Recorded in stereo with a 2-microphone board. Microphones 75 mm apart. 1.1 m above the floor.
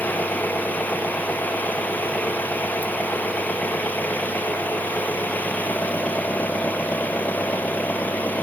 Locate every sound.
0.0 s an engine running: 20° left (ahead or behind)